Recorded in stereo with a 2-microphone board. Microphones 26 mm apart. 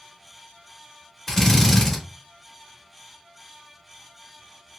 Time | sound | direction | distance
1.3 | a drill | 10° left (ahead or behind) | 1.0 m